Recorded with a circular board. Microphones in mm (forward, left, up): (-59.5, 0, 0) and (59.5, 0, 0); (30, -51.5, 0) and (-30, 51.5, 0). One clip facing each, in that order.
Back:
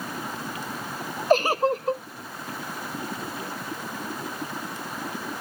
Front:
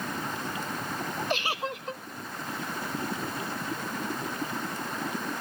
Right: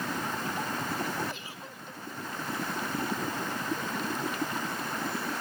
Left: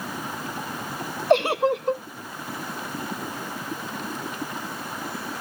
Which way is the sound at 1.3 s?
135° left.